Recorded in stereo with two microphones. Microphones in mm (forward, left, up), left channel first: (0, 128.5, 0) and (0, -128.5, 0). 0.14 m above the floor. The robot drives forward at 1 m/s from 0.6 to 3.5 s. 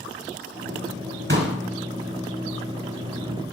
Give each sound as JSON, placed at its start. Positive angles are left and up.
{"t": 1.3, "sound": "a pop", "side_deg": -45, "distance_m": 1.3}